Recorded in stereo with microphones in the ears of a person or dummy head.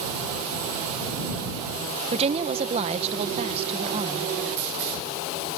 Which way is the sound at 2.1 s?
30° right (ahead or behind).